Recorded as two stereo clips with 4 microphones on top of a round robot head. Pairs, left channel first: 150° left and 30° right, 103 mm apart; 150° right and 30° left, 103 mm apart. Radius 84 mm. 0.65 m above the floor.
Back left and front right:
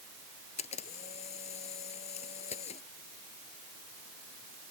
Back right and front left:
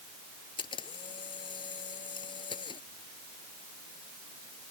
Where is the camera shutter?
170° left.